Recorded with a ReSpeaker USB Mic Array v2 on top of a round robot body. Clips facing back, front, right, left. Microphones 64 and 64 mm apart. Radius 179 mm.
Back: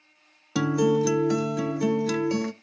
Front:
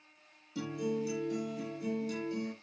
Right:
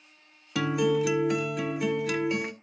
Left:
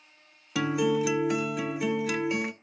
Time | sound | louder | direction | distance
0.6 | a guitar | back 13 dB, right 1 dB | straight behind | 0.5 m